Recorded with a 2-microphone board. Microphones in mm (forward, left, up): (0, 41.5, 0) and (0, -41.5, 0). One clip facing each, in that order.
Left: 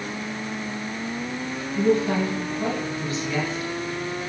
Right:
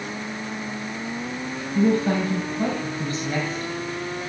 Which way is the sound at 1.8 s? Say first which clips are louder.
Right 1 dB; 40° right (ahead or behind).